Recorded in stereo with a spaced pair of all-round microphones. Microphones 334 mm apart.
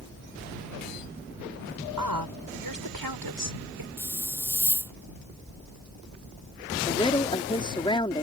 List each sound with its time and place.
2.0 s a woman speaking: 80° right; by 3.9 s 85° right
4.0 s a hiss: 5° left (ahead or behind)
6.9 s a woman speaking: 15° left (ahead or behind)